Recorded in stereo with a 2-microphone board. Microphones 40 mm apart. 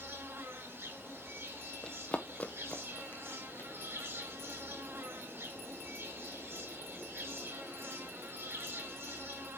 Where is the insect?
65° right (ahead or behind), 3.5 m.